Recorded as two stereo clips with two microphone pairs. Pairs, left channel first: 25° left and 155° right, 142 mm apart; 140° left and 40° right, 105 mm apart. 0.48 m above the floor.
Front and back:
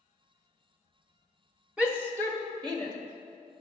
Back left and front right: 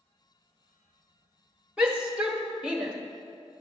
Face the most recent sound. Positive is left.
turn(degrees=-115)